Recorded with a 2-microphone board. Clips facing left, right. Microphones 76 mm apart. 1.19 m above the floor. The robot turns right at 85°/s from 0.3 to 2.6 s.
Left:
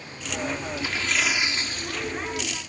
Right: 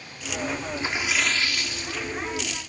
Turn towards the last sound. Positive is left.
turn(degrees=120)